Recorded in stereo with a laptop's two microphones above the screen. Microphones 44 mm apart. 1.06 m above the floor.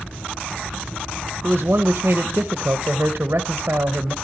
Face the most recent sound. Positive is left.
turn(degrees=-50)  # may be behind; listen again after turning